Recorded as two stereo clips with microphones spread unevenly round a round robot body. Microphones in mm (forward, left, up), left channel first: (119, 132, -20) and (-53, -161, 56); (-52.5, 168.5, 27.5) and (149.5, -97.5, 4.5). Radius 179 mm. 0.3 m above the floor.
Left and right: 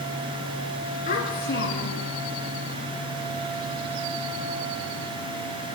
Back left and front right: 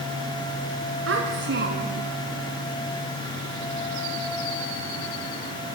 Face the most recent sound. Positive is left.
turn(degrees=15)